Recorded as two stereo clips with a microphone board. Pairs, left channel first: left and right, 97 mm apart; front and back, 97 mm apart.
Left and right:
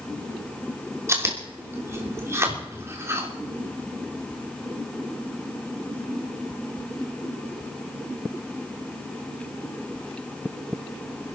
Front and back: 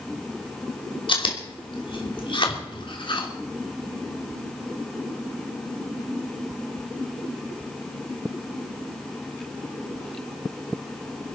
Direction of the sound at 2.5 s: 35° right.